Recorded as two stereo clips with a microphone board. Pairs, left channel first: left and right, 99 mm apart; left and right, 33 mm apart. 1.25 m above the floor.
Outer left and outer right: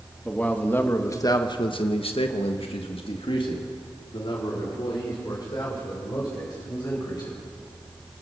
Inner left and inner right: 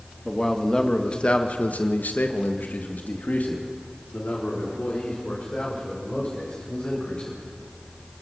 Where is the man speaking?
10° left (ahead or behind), 2.5 m; by 7.4 s 40° left (ahead or behind), 7.5 m.